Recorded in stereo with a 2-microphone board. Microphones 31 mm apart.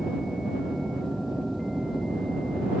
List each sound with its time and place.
0.0 s an aircraft: centre (ahead or behind); by 2.8 s 10° right (ahead or behind)